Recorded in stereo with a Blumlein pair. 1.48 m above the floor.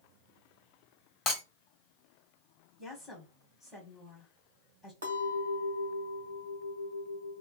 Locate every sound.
1.3 s breaking glass: 25° left, 2 m
2.8 s a woman speaking: 10° left, 2 m
5.0 s a clink: 65° right, 1.3 m